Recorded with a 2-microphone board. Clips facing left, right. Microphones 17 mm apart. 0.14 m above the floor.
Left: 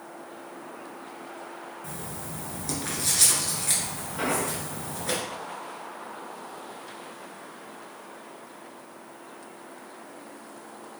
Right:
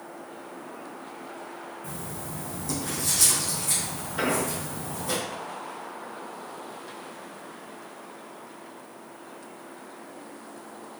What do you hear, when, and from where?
1.8 s writing: 40° left (ahead or behind), 1.5 m
4.2 s an explosion: 35° right (ahead or behind), 1.9 m